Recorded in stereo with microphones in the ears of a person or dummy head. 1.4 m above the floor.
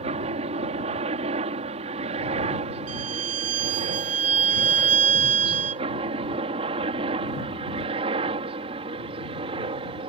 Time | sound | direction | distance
0.0 | a helicopter | 40° right (ahead or behind) | ?
2.9 | a violin | 45° right (ahead or behind) | ?